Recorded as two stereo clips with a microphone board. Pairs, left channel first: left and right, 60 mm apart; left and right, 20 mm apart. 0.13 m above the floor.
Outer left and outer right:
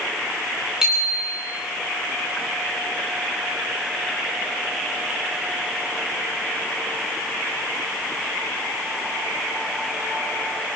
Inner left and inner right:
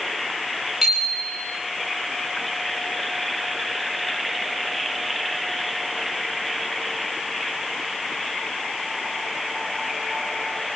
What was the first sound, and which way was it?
A bicycle bell, 10° right (ahead or behind).